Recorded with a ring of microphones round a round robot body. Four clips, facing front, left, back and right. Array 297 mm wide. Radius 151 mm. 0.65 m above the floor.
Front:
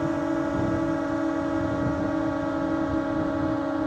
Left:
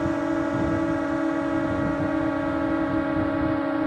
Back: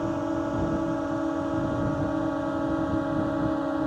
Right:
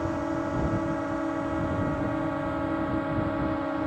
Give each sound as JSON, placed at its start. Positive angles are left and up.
{"t": 0.0, "sound": "a drone", "azimuth_deg": 65}